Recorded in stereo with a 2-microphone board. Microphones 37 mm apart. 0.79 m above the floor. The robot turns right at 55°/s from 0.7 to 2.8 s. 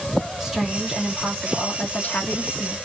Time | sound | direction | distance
0.4 | a woman speaking | 10° right | 1.5 m